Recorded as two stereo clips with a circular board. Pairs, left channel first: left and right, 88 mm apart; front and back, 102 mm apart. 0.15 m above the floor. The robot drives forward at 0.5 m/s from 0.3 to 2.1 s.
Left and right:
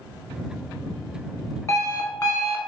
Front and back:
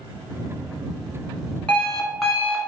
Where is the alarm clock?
70° left, 0.8 m; by 2.7 s 95° left, 0.7 m.